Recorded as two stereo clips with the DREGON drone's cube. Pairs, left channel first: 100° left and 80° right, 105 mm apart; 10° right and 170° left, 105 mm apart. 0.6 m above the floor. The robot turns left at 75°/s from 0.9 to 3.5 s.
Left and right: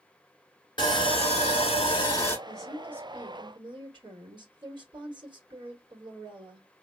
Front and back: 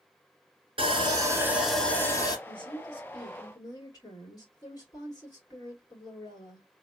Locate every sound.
0.8 s sawing: 140° left, 1.4 m; by 2.4 s 35° left, 1.4 m
2.5 s a woman speaking: 25° left, 1.9 m; by 6.7 s 55° right, 1.9 m